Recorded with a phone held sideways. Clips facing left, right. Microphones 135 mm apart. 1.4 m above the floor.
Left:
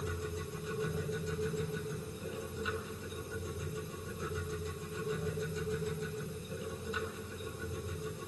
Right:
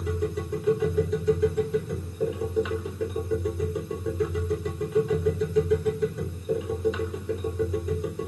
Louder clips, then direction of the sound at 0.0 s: Right 11 dB; 75° right (ahead or behind).